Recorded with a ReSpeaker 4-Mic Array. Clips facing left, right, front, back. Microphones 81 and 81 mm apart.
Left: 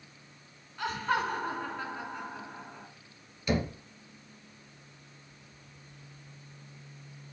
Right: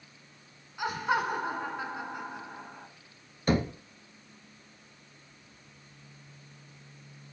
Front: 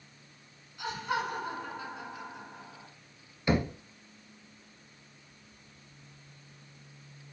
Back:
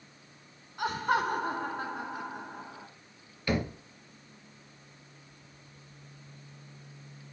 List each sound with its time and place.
0.8 s laughter: 165° right, 1.9 m
3.5 s knocking: 65° right, 1.3 m